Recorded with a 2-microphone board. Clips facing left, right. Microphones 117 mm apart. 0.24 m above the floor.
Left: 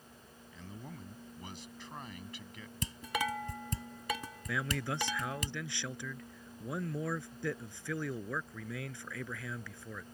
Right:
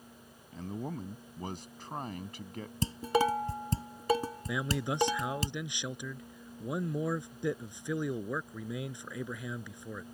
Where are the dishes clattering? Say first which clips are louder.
Right 8 dB; 35° right (ahead or behind).